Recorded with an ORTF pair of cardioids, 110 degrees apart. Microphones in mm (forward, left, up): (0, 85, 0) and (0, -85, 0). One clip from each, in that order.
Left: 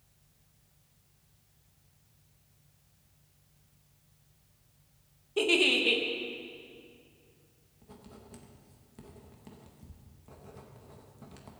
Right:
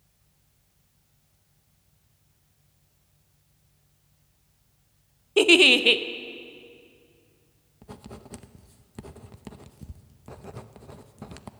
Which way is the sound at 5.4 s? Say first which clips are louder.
Right 9 dB; 45° right.